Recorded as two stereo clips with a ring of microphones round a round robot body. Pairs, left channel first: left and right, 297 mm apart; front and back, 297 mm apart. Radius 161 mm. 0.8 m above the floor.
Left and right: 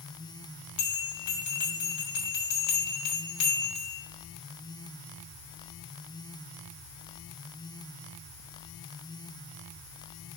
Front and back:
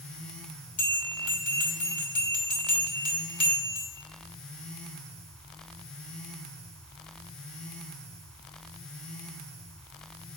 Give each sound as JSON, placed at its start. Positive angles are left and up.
{"t": 0.8, "sound": "a bell", "azimuth_deg": 65, "distance_m": 2.5}